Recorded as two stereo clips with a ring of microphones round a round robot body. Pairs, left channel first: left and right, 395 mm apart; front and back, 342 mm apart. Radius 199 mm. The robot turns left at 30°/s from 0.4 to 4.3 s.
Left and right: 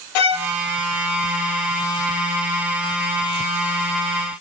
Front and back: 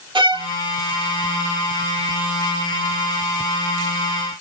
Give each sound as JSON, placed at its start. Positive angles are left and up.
{"t": 0.1, "sound": "a violin", "azimuth_deg": 105, "distance_m": 0.7}